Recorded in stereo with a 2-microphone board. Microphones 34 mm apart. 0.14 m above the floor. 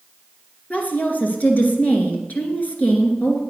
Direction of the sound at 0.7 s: 50° left (ahead or behind).